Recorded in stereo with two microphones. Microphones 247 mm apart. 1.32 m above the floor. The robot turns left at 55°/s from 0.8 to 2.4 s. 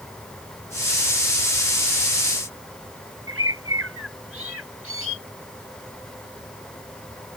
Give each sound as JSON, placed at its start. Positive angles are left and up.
{"t": 3.3, "sound": "a bird", "side_deg": -65}